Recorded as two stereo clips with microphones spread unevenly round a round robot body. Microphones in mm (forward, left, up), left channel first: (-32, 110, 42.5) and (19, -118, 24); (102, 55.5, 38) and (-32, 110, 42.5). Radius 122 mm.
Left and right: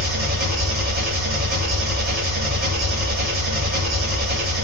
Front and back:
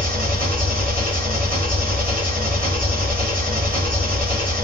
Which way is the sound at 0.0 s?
125° right.